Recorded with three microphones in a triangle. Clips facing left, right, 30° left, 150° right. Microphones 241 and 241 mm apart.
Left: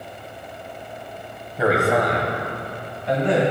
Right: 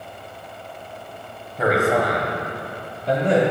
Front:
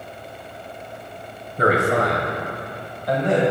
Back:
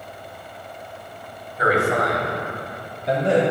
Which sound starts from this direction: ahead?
A man speaking, at 1.6 s.